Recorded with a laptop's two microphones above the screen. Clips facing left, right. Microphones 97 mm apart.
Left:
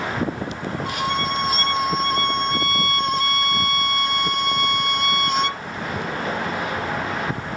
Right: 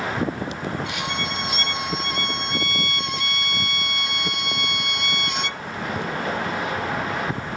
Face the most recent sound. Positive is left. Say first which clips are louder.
# left 5 dB
turn(degrees=40)  # may be behind; listen again after turning